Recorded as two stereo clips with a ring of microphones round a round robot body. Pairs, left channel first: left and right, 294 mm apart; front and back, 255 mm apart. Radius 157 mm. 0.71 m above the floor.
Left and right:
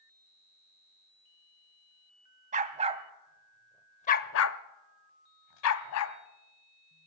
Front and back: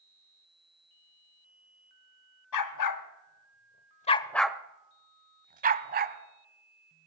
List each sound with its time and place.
2.5 s a dog barking: 25° right, 1.1 m; by 6.2 s 130° left, 1.4 m